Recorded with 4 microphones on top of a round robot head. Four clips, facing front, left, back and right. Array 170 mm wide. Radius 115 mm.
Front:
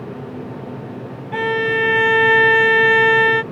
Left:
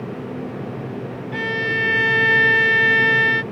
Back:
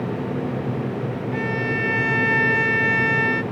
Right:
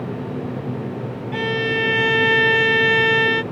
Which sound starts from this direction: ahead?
A violin, at 1.3 s.